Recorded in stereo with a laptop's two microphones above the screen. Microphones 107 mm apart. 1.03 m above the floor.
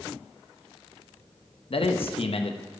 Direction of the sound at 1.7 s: 60° left (ahead or behind).